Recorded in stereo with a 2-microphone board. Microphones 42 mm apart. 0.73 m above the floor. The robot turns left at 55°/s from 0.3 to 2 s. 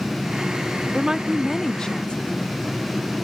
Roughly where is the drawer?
No drawer in this recording.